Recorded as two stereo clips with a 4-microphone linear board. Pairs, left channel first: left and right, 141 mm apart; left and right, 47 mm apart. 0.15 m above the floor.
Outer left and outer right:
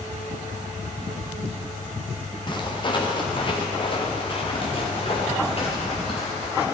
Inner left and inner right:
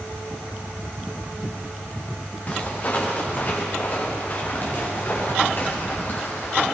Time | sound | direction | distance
2.5 | footsteps | 35° left (ahead or behind) | 3.5 m